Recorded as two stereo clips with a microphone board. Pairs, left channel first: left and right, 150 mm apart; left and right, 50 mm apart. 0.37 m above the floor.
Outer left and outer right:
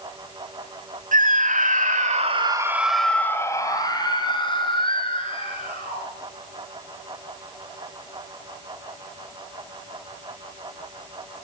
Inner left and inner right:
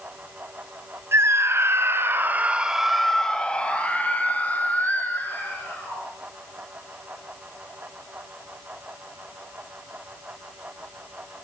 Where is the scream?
60° right (ahead or behind), 2.5 m; by 6.0 s 40° left (ahead or behind), 5.5 m.